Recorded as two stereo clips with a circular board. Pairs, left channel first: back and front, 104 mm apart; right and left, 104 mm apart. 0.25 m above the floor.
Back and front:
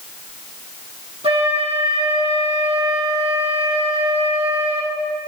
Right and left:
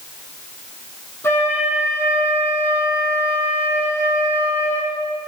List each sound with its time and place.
1.2 s a flute: 25° right, 4 m